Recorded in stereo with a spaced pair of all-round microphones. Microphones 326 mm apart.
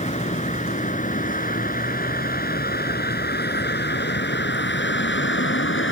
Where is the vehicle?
20° left (ahead or behind); by 5.9 s 35° left (ahead or behind).